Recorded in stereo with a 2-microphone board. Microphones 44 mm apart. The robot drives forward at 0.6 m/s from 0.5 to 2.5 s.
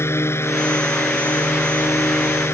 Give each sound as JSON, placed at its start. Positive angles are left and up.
{"t": 0.0, "sound": "a drone", "side_deg": 75}